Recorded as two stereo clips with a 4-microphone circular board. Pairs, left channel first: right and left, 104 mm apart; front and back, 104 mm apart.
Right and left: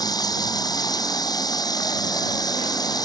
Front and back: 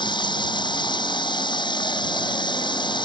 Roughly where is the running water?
Ahead right.